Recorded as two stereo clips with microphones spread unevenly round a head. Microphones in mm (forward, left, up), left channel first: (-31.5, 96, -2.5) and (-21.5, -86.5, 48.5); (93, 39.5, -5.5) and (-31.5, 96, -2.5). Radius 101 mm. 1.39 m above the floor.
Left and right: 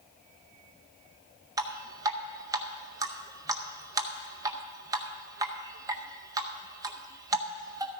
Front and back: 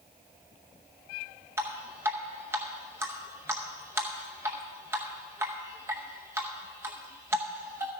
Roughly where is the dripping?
Behind right.